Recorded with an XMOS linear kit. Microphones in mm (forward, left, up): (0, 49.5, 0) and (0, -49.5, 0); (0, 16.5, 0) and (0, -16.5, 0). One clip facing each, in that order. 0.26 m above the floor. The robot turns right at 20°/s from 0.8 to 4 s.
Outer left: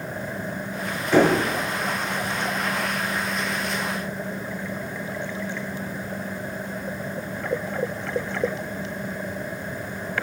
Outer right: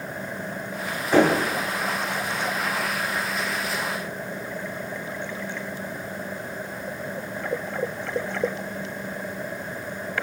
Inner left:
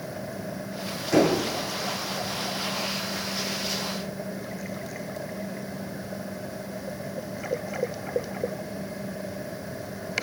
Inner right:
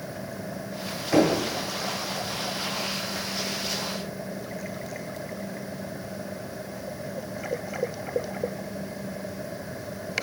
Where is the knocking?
10° right (ahead or behind), 1.6 m; by 1.4 s 15° right (ahead or behind), 1.6 m.